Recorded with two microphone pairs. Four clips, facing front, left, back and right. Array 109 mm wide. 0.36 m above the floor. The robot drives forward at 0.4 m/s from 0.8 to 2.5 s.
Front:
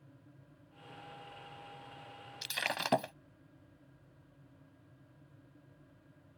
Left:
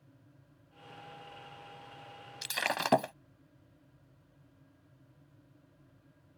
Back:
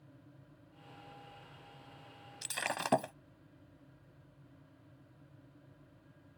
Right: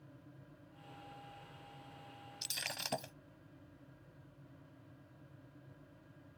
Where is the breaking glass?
100° left; by 3.1 s 105° left.